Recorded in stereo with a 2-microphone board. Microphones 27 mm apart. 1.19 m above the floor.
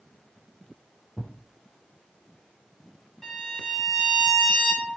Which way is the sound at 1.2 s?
50° left (ahead or behind).